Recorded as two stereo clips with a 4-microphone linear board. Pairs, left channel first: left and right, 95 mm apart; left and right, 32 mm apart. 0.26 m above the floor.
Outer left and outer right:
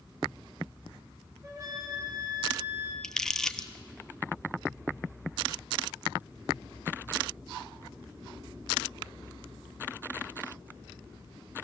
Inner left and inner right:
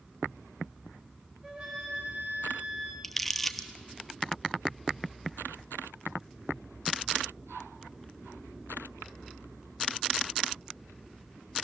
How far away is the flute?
About 4.5 m.